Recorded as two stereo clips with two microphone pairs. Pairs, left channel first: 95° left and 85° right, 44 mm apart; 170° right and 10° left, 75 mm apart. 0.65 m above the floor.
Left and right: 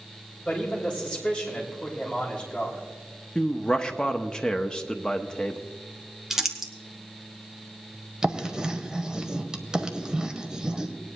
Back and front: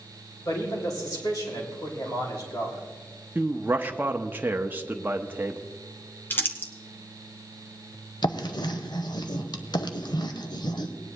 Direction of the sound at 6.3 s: 155° right.